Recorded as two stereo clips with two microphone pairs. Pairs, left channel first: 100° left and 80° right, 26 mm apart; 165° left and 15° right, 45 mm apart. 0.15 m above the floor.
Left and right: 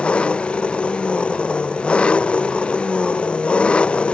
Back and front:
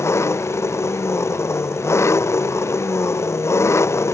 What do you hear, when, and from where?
0.0 s an engine running: 145° left